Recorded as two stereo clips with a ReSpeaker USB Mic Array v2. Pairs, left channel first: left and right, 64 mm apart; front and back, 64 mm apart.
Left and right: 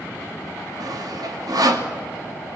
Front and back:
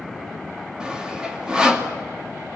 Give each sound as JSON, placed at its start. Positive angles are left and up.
{"t": 0.8, "sound": "sawing", "azimuth_deg": -105, "distance_m": 2.5}